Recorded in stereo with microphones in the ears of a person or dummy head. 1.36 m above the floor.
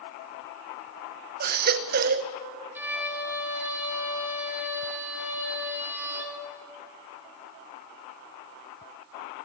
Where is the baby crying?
45° right (ahead or behind), 0.8 m.